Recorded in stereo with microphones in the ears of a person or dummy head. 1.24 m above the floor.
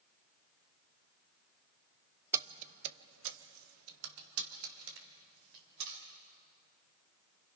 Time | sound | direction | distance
2.3 | keys jangling | 15° right (ahead or behind) | 0.6 m